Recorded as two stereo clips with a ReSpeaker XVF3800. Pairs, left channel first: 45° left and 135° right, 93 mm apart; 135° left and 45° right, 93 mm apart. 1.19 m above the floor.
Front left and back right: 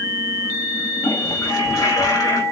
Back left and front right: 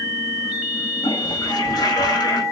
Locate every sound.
1.0 s a toilet flushing: 95° left, 4 m